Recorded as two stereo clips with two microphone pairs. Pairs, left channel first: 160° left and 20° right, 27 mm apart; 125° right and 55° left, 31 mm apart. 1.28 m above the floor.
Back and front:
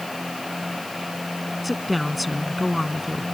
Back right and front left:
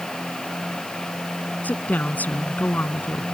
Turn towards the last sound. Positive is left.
turn(degrees=-105)